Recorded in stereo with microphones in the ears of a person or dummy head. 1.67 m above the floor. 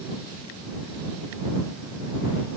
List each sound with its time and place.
Only background noise.